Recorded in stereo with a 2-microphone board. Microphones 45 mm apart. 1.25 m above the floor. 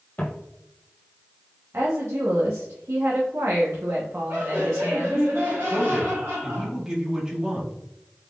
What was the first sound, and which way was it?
Footsteps, 35° left (ahead or behind).